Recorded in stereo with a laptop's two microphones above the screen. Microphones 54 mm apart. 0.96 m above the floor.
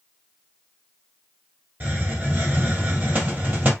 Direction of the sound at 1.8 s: 35° right (ahead or behind).